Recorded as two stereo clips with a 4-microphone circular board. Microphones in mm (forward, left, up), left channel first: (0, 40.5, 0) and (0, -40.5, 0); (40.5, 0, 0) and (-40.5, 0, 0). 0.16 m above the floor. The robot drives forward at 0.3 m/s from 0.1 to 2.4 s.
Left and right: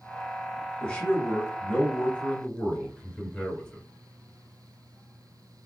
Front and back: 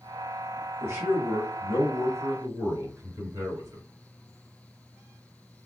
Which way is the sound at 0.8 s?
155° left.